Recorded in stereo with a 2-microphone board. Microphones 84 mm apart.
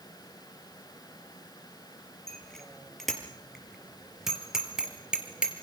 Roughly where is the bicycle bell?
Centre.